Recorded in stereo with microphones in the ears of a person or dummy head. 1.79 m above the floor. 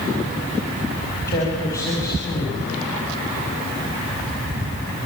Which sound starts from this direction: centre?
A man speaking, at 1.3 s.